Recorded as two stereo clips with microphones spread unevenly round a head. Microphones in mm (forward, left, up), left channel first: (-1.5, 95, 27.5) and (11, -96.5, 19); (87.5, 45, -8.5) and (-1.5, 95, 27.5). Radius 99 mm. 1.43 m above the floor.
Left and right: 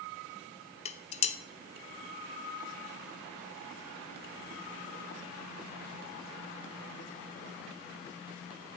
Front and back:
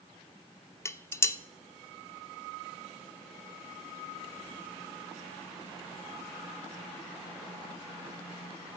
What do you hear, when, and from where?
0.8 s dishes clattering: 45° left, 0.7 m